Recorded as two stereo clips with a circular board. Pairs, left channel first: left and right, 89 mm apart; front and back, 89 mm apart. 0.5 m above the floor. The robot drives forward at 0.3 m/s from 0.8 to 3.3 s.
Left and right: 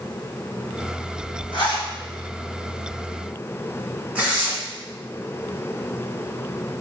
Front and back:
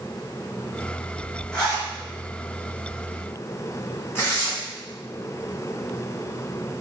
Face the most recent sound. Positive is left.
turn(degrees=-35)